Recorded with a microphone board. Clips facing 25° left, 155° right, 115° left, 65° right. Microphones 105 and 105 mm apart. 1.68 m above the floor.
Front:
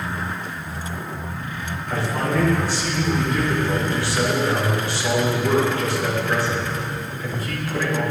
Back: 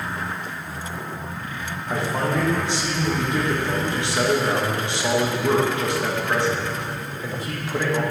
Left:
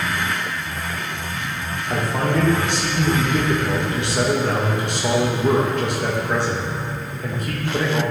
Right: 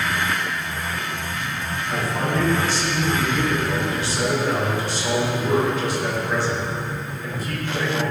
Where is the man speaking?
135° left, 1.6 m.